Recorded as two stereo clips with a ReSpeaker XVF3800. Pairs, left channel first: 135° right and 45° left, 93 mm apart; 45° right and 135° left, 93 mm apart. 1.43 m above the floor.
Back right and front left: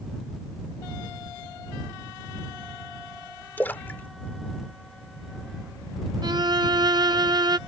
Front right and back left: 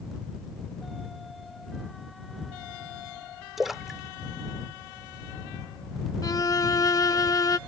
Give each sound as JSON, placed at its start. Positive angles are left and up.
{"t": 3.6, "sound": "a splash", "azimuth_deg": -145}
{"t": 6.2, "sound": "a violin", "azimuth_deg": 5}